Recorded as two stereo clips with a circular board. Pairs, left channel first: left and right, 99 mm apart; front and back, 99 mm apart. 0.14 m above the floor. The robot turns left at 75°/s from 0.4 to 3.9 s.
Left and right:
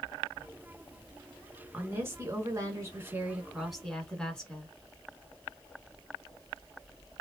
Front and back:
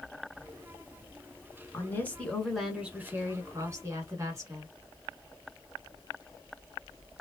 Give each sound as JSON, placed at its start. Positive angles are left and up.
{"t": 1.7, "sound": "a woman speaking", "azimuth_deg": -30, "distance_m": 1.2}